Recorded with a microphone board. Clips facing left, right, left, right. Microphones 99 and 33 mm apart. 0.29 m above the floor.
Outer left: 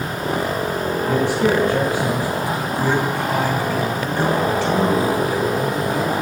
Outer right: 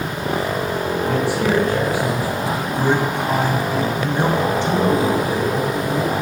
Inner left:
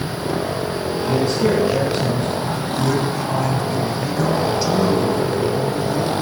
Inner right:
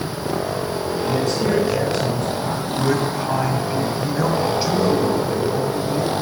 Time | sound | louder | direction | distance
1.0 | a man speaking | outer left 2 dB, inner left 3 dB | 15° left (ahead or behind) | 3 m
2.4 | a man speaking | outer right 1 dB, even | 20° right (ahead or behind) | 2.0 m